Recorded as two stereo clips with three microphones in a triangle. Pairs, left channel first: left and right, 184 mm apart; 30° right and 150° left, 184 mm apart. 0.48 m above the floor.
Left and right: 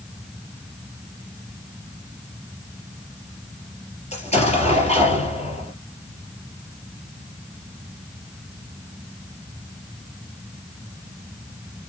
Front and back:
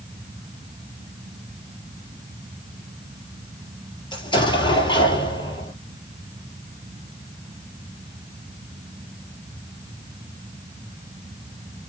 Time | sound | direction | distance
4.1 | an explosion | 35° left | 3 m